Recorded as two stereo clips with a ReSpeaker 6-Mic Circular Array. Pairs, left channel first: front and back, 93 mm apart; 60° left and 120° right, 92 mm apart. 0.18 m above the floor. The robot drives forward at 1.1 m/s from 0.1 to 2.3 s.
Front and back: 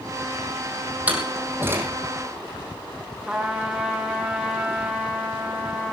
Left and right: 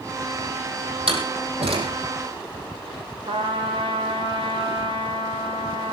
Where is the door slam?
105° right, 5 m; by 1.9 s 115° right, 5 m.